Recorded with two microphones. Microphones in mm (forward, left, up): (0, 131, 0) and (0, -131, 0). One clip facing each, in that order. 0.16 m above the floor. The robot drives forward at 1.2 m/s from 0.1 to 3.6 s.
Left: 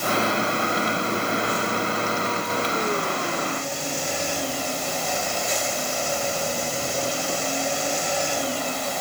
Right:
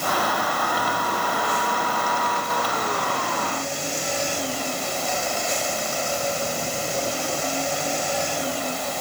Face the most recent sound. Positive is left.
No sound to turn to.